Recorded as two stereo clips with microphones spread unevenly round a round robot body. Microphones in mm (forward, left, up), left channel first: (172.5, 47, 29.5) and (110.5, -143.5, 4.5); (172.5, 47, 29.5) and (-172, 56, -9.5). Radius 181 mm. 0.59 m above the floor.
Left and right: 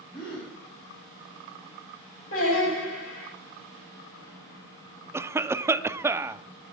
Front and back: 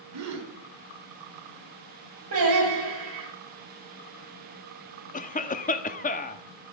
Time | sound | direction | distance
0.1 | a gasp | 135° left | 4 m
2.3 | singing | 130° left | 10 m
5.1 | a cough | 60° right | 0.8 m